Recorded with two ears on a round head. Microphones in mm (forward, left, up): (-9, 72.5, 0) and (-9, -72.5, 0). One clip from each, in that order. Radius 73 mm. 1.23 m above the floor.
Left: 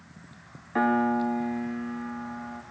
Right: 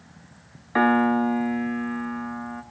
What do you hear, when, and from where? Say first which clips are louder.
0.8 s a piano: right 4 dB; 40° right (ahead or behind), 1.9 m